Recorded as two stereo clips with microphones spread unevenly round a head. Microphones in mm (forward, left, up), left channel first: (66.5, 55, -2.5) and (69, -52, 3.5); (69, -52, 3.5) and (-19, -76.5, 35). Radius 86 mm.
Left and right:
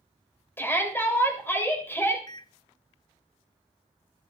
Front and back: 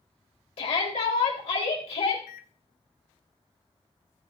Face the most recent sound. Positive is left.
turn(degrees=40)